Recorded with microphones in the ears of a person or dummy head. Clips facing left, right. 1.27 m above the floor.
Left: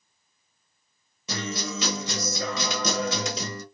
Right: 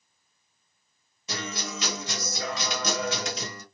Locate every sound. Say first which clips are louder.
1.3 s a guitar: left 3 dB; 70° left (ahead or behind), 1.2 m